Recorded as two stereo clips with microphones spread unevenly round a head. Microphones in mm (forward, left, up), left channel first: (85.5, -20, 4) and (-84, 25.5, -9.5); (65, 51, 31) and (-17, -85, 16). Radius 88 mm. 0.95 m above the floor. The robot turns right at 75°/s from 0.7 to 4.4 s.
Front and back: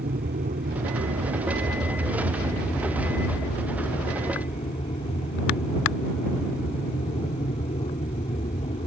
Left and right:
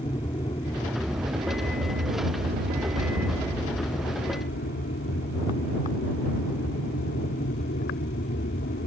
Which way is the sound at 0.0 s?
125° left.